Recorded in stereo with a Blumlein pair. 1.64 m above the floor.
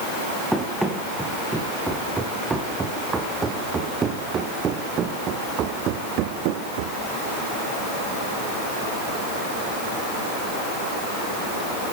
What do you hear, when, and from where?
0.5 s running footsteps: straight ahead, 5.5 m; by 7.0 s 50° right, 3.5 m